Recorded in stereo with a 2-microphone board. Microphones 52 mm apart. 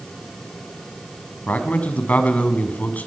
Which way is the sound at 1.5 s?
30° left (ahead or behind).